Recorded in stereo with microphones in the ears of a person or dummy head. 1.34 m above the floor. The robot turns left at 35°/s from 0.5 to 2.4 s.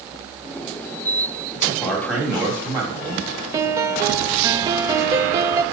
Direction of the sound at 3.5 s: 15° right (ahead or behind).